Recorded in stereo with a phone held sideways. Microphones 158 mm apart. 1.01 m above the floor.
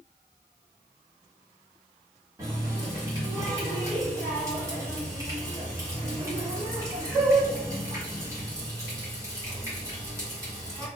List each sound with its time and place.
2.4 s a running tap: 20° right (ahead or behind), 1.5 m